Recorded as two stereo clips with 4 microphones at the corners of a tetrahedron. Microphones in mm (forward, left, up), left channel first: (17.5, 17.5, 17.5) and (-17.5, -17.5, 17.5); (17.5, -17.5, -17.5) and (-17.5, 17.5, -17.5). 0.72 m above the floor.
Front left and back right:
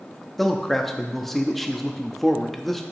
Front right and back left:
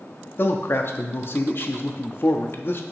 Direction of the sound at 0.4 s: 40° right.